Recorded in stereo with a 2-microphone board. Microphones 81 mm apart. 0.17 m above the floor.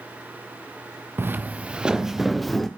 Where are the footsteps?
30° right (ahead or behind), 0.9 m; by 2.7 s 5° left (ahead or behind), 1.4 m.